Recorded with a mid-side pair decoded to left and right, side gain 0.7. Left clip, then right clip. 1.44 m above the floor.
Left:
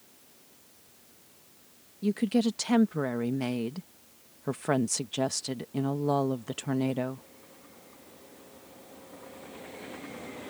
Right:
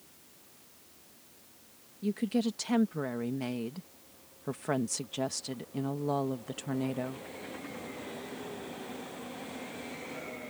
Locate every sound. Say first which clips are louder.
2.0 s a woman speaking: left 4 dB; 20° left